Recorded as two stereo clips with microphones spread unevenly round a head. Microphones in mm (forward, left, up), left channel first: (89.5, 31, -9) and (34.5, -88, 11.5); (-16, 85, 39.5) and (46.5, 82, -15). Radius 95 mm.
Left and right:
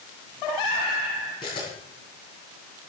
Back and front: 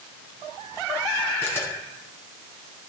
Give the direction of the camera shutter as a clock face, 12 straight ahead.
8 o'clock.